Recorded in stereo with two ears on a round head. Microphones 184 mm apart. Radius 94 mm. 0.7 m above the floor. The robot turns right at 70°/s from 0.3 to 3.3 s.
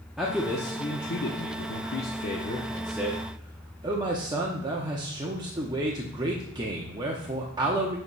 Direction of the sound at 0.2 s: 5° right.